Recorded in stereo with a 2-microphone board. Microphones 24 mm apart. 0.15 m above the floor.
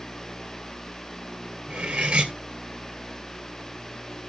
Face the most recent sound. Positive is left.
turn(degrees=-60)  # may be behind; listen again after turning